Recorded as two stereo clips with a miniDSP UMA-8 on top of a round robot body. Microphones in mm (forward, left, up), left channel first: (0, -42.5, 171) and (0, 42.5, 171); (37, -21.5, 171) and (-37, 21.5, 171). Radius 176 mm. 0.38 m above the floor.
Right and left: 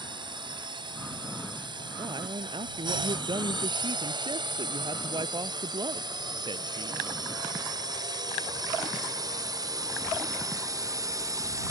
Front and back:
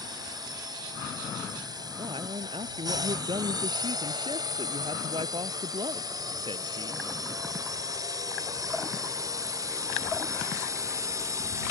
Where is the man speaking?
125° left.